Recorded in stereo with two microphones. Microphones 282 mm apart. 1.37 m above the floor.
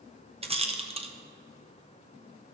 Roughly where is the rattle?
Right.